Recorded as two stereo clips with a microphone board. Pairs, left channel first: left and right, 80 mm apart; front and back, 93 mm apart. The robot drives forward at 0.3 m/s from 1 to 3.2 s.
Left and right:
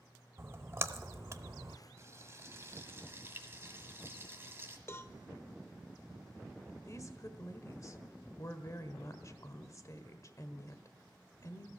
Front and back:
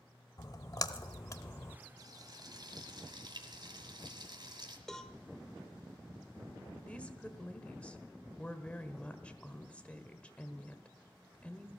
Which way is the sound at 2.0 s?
140° right.